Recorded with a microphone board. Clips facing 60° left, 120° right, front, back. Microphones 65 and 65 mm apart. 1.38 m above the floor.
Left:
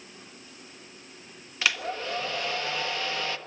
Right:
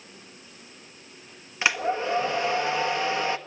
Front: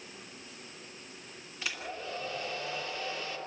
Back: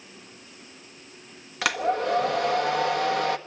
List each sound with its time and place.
1.6 s a hair dryer: 170° left, 1.2 m